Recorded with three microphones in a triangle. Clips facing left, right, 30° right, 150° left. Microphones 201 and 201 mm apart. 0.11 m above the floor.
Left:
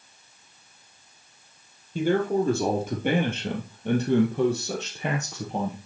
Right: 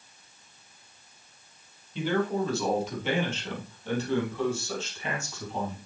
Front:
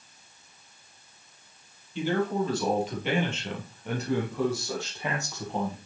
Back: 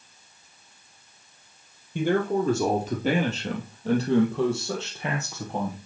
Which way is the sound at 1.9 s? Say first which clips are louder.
Left 4 dB, back 3 dB; 125° left.